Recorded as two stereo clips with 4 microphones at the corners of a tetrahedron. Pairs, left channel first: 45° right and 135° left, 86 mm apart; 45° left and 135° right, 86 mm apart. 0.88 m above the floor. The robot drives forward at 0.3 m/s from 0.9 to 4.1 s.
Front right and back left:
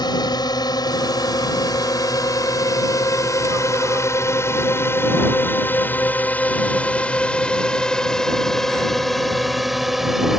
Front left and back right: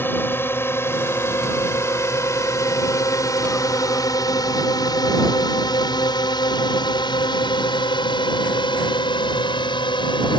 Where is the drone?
20° right; by 10.4 s 50° left.